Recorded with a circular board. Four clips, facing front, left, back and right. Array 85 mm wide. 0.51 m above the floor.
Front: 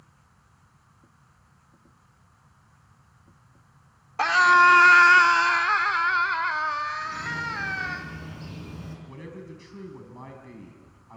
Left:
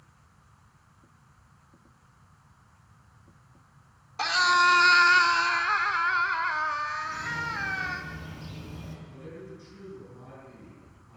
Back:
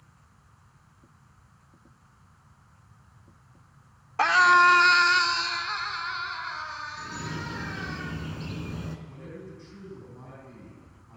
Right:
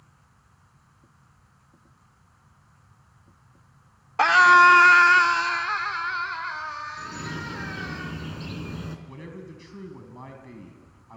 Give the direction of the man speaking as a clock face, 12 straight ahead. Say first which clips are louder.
Right 2 dB, front 2 dB; 2 o'clock.